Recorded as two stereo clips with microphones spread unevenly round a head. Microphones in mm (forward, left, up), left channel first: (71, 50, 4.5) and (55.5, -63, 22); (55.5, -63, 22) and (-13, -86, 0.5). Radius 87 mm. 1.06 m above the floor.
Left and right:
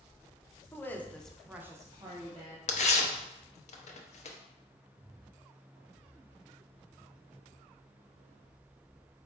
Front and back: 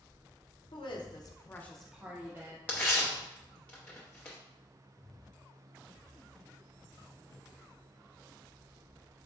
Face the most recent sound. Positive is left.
turn(degrees=75)